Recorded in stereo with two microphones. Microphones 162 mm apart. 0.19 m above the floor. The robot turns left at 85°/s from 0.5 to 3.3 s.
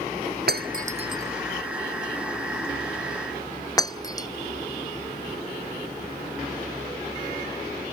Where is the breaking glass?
80° right; by 4.3 s 25° left (ahead or behind).